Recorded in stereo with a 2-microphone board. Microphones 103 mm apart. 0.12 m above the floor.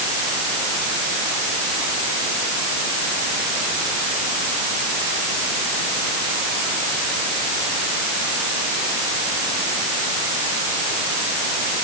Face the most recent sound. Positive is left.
No sound to turn to.